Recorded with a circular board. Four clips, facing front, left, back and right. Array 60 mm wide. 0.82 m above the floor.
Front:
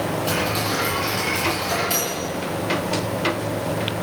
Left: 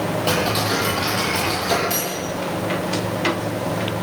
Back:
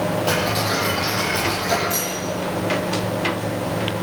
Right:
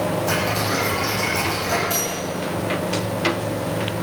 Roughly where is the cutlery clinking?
Ahead left.